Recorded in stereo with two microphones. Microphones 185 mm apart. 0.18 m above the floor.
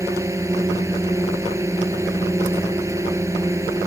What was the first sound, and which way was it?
A drone, 15° right (ahead or behind).